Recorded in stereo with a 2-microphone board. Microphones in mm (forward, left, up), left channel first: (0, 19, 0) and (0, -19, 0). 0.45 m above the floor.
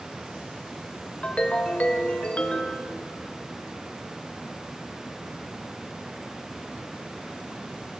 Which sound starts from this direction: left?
A ringtone, at 1.2 s.